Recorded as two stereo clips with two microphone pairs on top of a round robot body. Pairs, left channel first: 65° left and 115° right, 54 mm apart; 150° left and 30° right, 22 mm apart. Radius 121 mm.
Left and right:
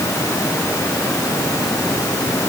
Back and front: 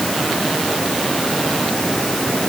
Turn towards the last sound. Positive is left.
No sound to turn to.